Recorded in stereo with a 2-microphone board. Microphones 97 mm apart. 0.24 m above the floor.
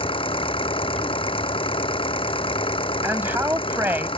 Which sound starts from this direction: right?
A man speaking, at 3.0 s.